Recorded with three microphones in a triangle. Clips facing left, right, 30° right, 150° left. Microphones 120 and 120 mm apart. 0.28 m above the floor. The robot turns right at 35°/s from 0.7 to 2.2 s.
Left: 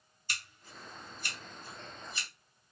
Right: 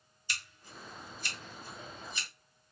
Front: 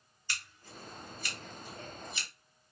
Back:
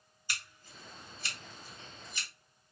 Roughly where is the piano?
I don't hear a piano.